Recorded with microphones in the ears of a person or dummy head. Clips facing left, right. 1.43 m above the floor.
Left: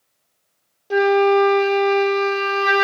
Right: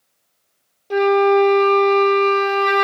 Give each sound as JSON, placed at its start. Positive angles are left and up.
{"t": 0.9, "sound": "a flute", "side_deg": 10, "distance_m": 0.7}